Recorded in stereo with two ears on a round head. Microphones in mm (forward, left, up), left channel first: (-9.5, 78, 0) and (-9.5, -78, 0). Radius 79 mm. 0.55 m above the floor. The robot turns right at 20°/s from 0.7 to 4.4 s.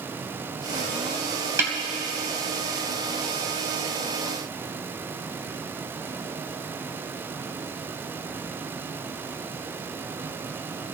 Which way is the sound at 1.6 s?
15° right (ahead or behind).